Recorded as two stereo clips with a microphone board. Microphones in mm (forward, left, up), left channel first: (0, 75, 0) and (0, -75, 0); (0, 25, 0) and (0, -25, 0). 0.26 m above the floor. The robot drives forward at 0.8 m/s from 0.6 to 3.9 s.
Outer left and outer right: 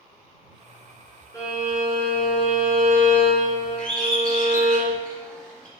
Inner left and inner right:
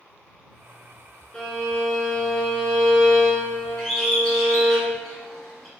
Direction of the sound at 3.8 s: 5° left (ahead or behind).